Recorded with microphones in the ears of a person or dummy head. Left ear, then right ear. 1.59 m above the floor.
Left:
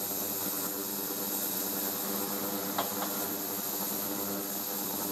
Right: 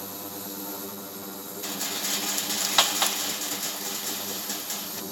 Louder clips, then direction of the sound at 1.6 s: Right 6 dB; 75° right (ahead or behind).